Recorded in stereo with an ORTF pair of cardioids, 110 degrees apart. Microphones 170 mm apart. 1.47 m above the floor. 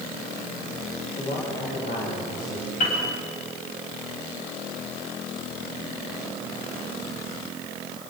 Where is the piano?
45° left, 9 m.